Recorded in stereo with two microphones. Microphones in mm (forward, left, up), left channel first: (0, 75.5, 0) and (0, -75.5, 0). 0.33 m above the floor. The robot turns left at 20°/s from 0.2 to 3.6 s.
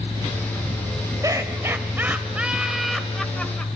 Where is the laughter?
145° right, 1.7 m; by 3.7 s 165° left, 1.7 m.